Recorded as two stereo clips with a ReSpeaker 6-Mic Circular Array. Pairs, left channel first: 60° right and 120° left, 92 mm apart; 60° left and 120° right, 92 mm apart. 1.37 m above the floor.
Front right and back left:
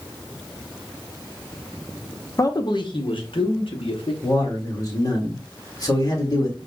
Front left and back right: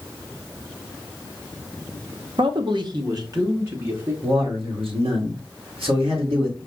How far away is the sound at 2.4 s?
About 0.7 m.